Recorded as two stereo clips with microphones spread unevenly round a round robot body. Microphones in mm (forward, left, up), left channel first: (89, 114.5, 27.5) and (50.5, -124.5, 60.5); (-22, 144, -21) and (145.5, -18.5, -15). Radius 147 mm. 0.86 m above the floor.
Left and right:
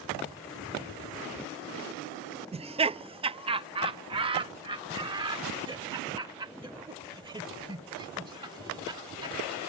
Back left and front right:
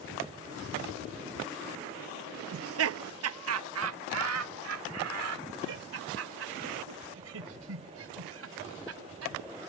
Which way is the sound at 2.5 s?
30° right.